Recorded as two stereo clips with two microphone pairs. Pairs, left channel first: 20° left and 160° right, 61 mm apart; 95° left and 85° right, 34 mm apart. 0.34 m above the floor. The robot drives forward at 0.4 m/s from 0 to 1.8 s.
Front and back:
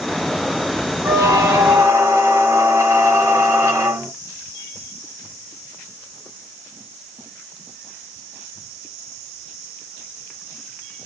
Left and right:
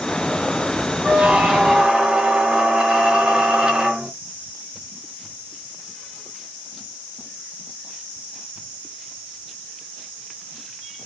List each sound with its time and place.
1.0 s a squeak: 135° right, 1.3 m; by 4.1 s 145° right, 1.5 m